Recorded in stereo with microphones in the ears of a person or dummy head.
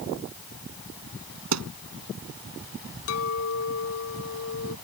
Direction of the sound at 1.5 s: 80° right.